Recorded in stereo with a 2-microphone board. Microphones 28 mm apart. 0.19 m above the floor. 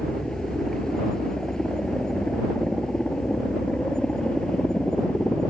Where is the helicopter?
20° left (ahead or behind); by 5.5 s 30° left (ahead or behind).